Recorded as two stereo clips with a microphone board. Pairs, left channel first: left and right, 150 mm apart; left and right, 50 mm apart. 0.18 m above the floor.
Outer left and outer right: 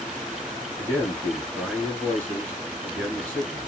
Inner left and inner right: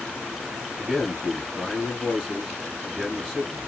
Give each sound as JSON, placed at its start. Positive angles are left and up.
{"t": 0.8, "sound": "a man speaking", "side_deg": -10, "distance_m": 3.0}